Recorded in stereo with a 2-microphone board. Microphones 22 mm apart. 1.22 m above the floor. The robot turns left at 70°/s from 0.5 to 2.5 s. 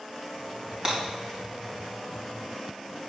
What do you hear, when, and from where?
0.8 s breaking glass: 35° right (ahead or behind), 4 m; by 1.0 s 40° right (ahead or behind), 4 m